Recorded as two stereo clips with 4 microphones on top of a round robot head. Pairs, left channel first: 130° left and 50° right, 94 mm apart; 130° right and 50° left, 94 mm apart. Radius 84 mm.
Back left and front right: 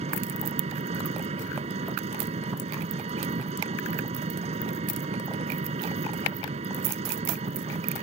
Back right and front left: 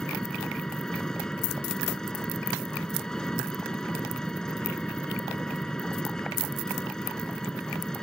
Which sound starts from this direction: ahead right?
An engine running, at 0.0 s.